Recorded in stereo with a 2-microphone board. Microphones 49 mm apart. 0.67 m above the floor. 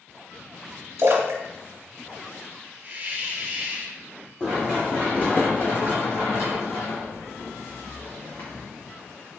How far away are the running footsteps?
About 1.6 m.